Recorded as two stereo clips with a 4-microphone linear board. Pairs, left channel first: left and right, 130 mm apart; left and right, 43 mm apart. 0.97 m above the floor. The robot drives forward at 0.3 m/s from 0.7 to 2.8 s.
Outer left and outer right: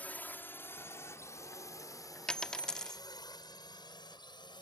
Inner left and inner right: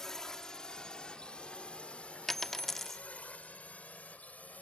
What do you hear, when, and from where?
0.0 s a drone: 10° left (ahead or behind); by 4.6 s 35° left (ahead or behind)
2.3 s a dropped coin: 5° left (ahead or behind)